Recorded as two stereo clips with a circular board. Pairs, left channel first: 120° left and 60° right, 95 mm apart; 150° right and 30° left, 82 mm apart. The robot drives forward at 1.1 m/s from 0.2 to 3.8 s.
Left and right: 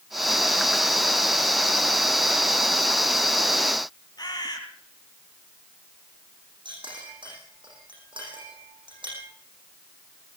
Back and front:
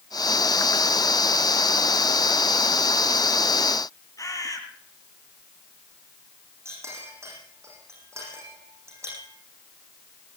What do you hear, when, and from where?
4.2 s a bird: 160° left, 4.5 m
6.7 s a clink: 25° right, 10 m